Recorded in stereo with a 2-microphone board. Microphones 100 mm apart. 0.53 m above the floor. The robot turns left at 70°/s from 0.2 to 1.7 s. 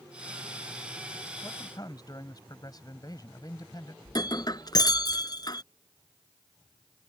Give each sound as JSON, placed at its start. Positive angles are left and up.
{"t": 1.4, "sound": "a man speaking", "side_deg": 25}
{"t": 4.0, "sound": "breaking glass", "side_deg": 45}